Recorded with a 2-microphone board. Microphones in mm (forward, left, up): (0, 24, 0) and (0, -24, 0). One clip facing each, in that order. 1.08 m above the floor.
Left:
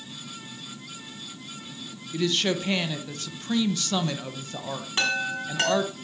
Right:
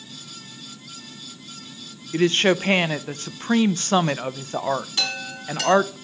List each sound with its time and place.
2.1 s a woman speaking: 40° right (ahead or behind), 0.7 m
5.0 s a chime: 35° left (ahead or behind), 4 m